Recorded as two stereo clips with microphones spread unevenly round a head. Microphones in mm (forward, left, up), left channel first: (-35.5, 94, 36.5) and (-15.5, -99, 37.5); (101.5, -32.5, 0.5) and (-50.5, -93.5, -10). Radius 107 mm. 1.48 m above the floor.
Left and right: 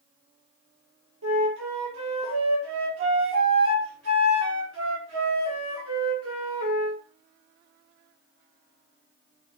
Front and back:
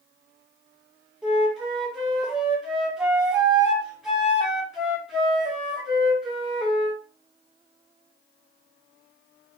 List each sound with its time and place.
1.2 s a flute: 70° right, 1.5 m